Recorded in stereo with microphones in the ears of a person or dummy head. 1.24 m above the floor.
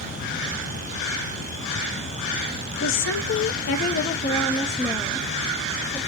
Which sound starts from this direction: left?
A woman speaking, at 2.8 s.